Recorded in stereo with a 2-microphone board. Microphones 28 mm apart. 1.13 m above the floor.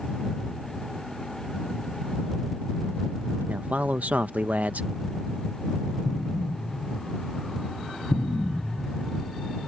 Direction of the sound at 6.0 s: 60° left (ahead or behind).